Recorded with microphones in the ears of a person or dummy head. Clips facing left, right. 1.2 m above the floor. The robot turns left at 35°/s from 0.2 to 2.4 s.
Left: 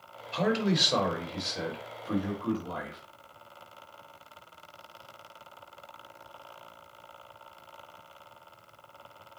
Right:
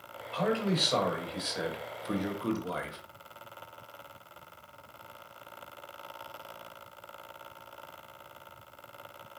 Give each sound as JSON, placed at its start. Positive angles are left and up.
{"t": 0.3, "sound": "a man speaking", "azimuth_deg": 35, "distance_m": 1.2}